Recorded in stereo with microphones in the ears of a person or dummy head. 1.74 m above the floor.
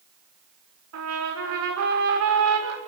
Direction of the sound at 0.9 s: 75° right (ahead or behind).